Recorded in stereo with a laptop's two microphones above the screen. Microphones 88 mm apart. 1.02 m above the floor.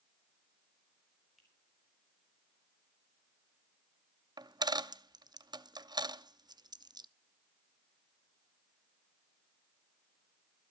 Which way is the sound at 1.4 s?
Centre (ahead or behind).